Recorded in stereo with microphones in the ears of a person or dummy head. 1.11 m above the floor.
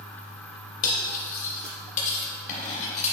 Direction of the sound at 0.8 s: 40° left (ahead or behind).